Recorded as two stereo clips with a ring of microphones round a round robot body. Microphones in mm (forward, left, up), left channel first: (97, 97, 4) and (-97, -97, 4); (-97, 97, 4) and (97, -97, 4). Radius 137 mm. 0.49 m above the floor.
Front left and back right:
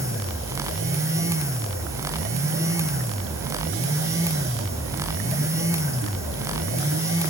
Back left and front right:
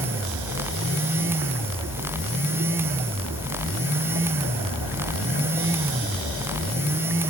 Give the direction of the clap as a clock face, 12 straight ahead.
No clap in this recording.